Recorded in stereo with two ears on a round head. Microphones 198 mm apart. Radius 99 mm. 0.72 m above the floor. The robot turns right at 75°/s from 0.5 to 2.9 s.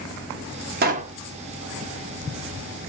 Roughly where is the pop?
Right.